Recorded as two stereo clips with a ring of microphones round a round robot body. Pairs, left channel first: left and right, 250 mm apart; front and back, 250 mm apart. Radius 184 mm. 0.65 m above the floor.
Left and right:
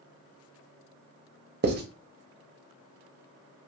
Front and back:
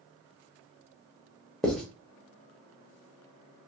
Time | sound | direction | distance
1.6 | writing | 85° right | 0.6 m